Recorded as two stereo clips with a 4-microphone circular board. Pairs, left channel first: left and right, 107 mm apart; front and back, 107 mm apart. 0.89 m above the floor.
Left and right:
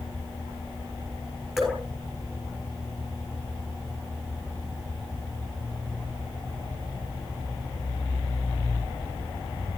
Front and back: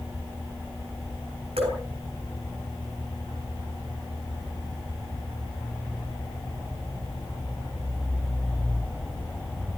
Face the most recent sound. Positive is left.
turn(degrees=180)